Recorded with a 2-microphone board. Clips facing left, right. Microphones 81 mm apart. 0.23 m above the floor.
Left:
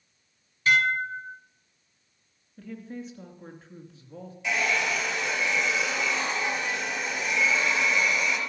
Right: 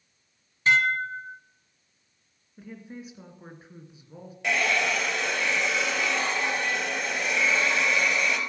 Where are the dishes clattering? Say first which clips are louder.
Even; 25° right (ahead or behind), 1.4 m.